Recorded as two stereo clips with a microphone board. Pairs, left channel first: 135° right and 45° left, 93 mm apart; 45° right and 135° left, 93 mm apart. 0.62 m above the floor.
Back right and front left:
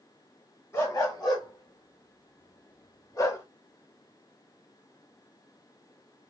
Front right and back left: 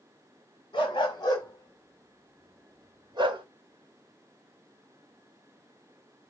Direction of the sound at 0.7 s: 80° right.